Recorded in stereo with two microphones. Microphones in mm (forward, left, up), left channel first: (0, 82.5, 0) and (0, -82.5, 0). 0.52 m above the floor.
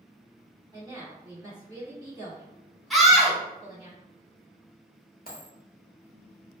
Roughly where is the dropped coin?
Left.